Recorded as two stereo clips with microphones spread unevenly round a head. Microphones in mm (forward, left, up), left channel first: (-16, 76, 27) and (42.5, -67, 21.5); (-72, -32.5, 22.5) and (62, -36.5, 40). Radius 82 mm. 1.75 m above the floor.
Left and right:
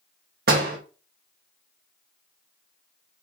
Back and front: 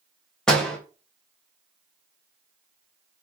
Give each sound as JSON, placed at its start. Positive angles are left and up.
{"t": 0.5, "sound": "a door slam", "azimuth_deg": -95, "distance_m": 1.3}